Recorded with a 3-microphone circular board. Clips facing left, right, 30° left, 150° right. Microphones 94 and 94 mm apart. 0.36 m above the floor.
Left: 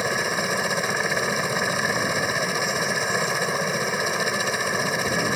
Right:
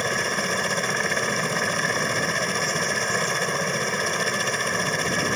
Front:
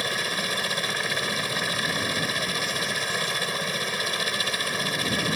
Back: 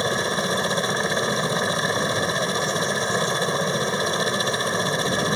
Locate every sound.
0.0 s a helicopter: 170° left